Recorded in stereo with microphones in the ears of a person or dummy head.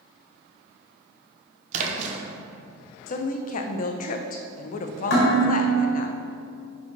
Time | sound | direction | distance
1.7 | a splash | 45° right (ahead or behind) | 0.9 m
3.1 | a woman speaking | 45° left (ahead or behind) | 0.5 m
5.1 | dishes clattering | 75° left (ahead or behind) | 2 m